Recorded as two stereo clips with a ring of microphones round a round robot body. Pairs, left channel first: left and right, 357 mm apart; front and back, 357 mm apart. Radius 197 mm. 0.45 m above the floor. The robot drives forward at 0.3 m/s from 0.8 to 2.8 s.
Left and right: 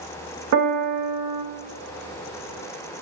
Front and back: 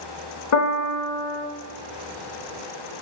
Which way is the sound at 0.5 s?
45° right.